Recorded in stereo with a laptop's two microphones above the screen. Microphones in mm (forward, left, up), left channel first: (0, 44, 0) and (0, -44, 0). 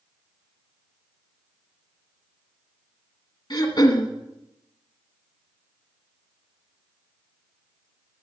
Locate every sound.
3.5 s throat clearing: 55° left (ahead or behind), 1.9 m